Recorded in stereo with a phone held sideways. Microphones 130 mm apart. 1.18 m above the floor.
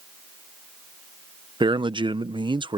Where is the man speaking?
40° right (ahead or behind).